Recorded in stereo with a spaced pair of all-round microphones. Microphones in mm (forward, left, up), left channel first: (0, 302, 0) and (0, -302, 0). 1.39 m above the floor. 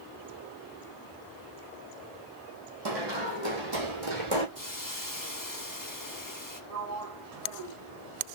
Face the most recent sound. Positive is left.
turn(degrees=-80)